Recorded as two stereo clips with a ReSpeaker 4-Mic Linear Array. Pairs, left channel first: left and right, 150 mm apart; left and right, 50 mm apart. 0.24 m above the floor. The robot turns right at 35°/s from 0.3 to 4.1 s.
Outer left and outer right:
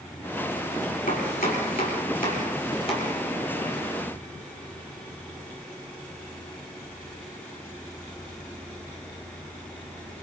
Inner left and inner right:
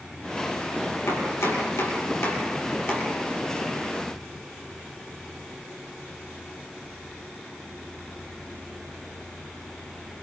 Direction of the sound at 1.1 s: 70° left (ahead or behind).